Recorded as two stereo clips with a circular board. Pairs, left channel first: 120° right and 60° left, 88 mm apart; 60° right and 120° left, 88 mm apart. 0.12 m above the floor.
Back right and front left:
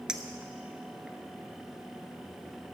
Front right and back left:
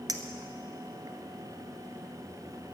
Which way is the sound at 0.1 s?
140° left.